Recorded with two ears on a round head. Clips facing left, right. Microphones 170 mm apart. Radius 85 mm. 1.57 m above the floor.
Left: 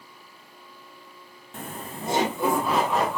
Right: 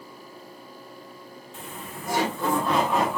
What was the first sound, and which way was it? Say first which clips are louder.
Laughter: left 4 dB; 45° left (ahead or behind).